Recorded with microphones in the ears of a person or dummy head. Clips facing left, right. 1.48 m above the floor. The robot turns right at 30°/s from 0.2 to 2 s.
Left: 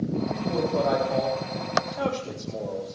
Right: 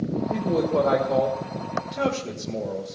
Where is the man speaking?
75° right (ahead or behind), 2 m; by 2.9 s 50° right (ahead or behind), 2 m.